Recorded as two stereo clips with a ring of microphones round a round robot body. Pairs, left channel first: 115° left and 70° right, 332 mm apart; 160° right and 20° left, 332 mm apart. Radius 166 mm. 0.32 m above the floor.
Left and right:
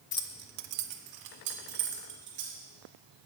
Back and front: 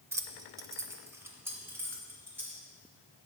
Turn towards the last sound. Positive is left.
turn(degrees=-60)